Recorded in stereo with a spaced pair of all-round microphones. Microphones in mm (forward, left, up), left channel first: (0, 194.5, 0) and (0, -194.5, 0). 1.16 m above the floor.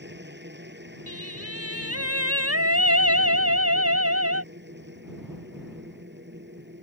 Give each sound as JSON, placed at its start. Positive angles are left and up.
{"t": 0.0, "sound": "a machine running", "side_deg": -25}
{"t": 1.1, "sound": "singing", "side_deg": -35}